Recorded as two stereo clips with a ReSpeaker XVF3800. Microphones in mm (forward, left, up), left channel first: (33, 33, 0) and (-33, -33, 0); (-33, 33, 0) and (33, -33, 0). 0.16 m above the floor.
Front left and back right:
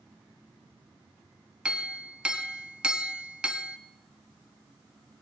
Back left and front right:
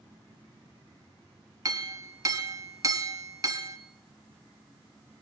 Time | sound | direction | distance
1.6 | a clink | 65° right | 1.2 m